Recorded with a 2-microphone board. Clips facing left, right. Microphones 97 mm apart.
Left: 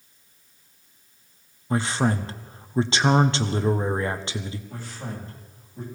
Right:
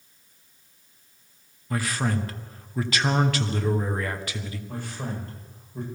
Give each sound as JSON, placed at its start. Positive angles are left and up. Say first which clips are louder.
{"t": 1.7, "sound": "a man speaking", "louder": "left 4 dB", "side_deg": 25, "distance_m": 1.0}
{"t": 4.7, "sound": "a man speaking", "louder": "right 2 dB", "side_deg": -60, "distance_m": 9.5}